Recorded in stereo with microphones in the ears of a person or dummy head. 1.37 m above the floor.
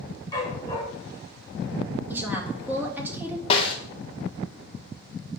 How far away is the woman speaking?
About 2.5 m.